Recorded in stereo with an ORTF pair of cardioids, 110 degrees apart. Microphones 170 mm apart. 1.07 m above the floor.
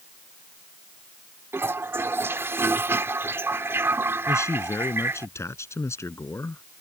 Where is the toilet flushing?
15° right.